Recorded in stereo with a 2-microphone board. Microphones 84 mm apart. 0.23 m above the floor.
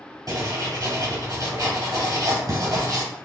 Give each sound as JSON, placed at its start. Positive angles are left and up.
{"t": 0.3, "sound": "writing", "side_deg": -50, "distance_m": 1.5}